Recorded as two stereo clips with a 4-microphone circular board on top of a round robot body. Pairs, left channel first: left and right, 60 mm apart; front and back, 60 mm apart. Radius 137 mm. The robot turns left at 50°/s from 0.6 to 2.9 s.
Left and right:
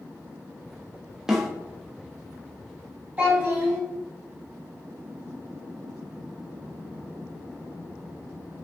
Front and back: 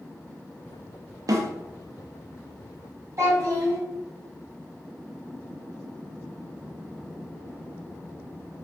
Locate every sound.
1.3 s a snare drum: 170° right, 0.6 m; by 1.5 s straight behind, 0.6 m
3.2 s a child speaking: 155° right, 1.4 m